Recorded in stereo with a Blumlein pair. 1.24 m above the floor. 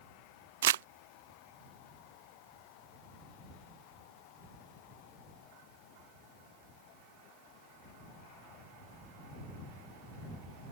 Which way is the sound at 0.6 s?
60° right.